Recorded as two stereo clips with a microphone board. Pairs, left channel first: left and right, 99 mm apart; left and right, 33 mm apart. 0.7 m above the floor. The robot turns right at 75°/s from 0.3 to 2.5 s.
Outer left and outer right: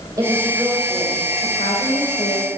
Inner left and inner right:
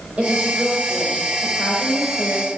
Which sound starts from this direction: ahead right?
A woman speaking, at 0.2 s.